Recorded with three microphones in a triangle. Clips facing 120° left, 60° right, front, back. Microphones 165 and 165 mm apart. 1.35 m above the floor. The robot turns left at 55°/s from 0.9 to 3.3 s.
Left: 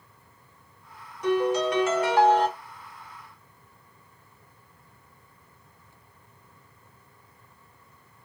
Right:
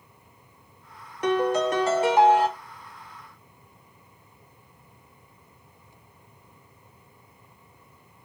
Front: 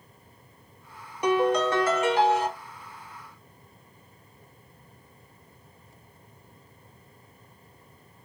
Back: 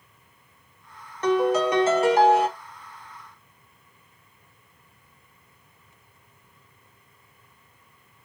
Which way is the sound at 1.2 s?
80° right.